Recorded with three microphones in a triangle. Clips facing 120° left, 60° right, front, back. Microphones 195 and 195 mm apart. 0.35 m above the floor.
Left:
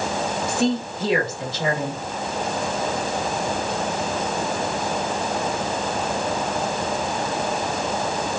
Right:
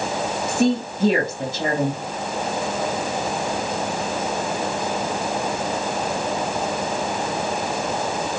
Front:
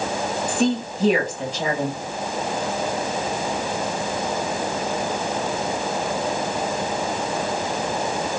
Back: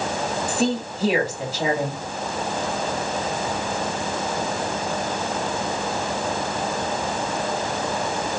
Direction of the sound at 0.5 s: 95° right.